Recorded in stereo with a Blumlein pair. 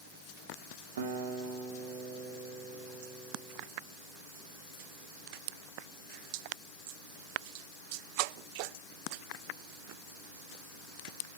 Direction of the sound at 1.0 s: 60° right.